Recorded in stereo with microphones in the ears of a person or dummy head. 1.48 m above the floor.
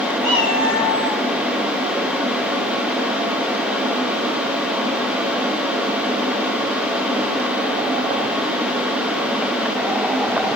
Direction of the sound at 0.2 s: 55° left (ahead or behind).